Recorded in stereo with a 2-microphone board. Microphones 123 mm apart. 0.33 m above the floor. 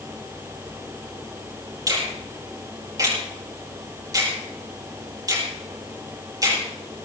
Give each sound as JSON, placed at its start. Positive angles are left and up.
{"t": 1.9, "sound": "a finger snap", "side_deg": -30, "distance_m": 6.0}